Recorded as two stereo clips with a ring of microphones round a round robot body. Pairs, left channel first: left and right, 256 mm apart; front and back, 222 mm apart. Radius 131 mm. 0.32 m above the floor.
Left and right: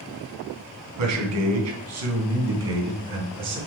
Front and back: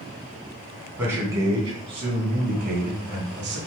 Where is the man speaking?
95° right, 3 m; by 3.6 s 135° right, 3.5 m.